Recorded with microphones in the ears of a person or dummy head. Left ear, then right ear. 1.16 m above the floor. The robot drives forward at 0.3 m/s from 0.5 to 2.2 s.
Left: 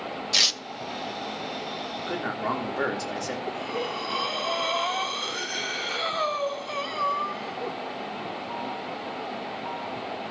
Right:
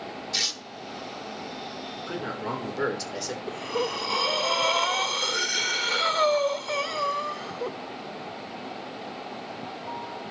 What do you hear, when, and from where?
0.3 s tearing paper: 40° left (ahead or behind), 0.9 m
2.0 s a man speaking: 55° left (ahead or behind), 2.5 m
3.5 s breathing: 10° right (ahead or behind), 0.5 m